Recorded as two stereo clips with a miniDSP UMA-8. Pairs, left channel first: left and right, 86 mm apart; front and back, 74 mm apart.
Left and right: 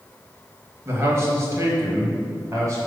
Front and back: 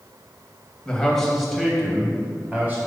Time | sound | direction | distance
0.8 | a man speaking | 70° right | 1.5 m